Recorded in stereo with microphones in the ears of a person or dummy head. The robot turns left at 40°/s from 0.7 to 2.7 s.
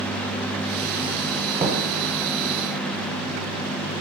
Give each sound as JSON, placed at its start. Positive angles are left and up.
{"t": 1.6, "sound": "knocking", "side_deg": -20, "distance_m": 0.8}